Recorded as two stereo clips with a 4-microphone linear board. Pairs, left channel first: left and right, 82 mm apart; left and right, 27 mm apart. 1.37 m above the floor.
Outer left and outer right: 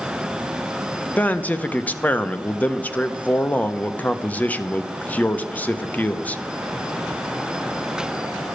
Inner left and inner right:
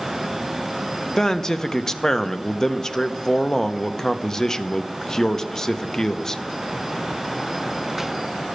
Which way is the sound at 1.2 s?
20° left (ahead or behind).